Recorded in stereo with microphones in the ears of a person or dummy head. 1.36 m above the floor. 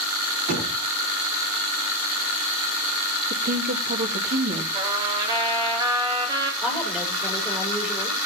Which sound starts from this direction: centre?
A woman speaking, at 6.6 s.